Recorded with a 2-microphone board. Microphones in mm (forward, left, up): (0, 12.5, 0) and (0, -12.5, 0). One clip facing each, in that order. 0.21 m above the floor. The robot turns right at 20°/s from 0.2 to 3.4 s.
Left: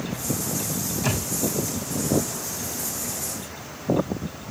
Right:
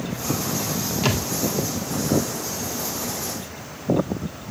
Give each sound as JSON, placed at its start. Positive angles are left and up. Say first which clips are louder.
{"t": 1.0, "sound": "a thud", "louder": "right 4 dB", "side_deg": -60, "distance_m": 2.5}